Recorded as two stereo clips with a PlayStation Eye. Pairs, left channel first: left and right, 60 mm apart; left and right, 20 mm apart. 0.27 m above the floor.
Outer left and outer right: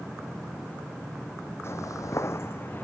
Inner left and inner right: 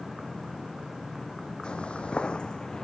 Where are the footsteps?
50° left (ahead or behind); by 2.8 s 35° left (ahead or behind).